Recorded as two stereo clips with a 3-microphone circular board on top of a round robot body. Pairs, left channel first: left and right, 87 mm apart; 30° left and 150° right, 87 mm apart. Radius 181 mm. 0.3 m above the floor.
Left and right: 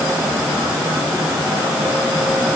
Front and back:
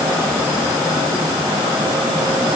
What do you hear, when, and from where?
Only background noise.